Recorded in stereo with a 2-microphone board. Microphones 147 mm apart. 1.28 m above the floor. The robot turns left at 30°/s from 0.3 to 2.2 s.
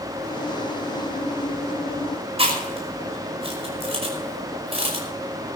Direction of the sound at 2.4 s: 40° right (ahead or behind).